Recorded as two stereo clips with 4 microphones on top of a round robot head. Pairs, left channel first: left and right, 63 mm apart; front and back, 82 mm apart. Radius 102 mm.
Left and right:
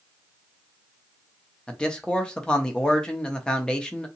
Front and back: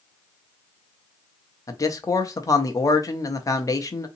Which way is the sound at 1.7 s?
15° left.